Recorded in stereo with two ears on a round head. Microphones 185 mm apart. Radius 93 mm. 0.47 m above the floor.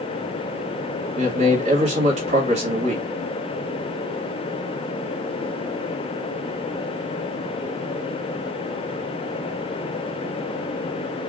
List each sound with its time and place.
1.2 s a man speaking: 30° right (ahead or behind), 2 m